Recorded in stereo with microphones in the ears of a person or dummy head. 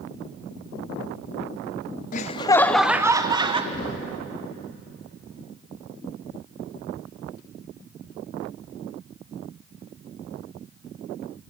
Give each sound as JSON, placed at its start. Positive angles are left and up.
{"t": 2.1, "sound": "laughter", "side_deg": 40, "distance_m": 0.5}
{"t": 3.7, "sound": "knocking", "side_deg": 30, "distance_m": 3.5}